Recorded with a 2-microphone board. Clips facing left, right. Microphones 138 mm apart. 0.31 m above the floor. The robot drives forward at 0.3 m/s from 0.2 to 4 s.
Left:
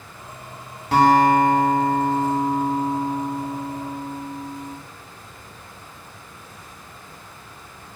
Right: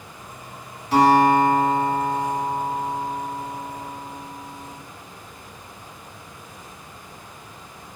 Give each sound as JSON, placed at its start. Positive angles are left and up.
{"t": 0.9, "sound": "a guitar", "side_deg": 75, "distance_m": 0.8}